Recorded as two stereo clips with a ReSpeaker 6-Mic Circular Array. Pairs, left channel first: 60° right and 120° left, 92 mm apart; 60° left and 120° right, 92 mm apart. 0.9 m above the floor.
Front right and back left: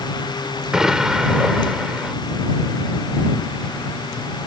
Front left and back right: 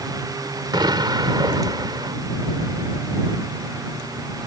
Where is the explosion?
155° right.